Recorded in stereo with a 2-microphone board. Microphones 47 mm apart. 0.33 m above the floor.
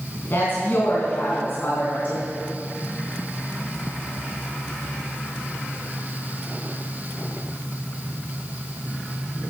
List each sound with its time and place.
0.3 s a woman speaking: 45° left (ahead or behind), 3.5 m